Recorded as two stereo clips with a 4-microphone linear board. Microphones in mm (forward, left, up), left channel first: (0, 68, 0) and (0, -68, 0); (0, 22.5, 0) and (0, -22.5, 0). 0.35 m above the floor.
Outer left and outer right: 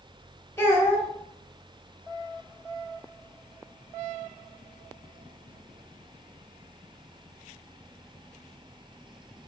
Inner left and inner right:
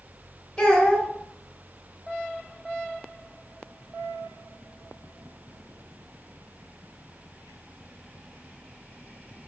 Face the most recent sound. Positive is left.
turn(degrees=20)  # may be behind; listen again after turning